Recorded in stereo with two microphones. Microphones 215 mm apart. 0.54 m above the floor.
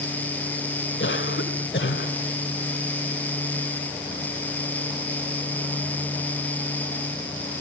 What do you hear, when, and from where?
1.0 s a cough: 65° left (ahead or behind), 2 m